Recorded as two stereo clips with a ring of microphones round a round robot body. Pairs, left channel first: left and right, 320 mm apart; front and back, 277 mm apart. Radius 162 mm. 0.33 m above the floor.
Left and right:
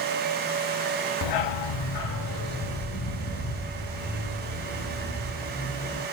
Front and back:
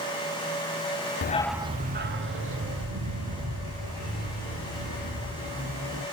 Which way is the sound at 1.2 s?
55° left.